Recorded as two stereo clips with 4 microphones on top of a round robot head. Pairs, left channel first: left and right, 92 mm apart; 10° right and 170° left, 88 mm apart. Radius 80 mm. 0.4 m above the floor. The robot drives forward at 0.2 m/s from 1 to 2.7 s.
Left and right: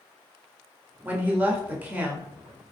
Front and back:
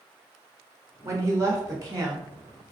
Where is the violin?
No violin in this recording.